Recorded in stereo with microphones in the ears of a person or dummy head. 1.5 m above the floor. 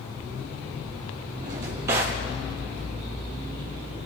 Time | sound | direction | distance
1.4 | a drawer | 20° right (ahead or behind) | 0.5 m